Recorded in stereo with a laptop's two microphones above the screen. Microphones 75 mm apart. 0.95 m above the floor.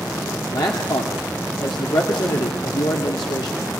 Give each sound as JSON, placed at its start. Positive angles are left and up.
{"t": 0.5, "sound": "a man speaking", "side_deg": 70, "distance_m": 2.0}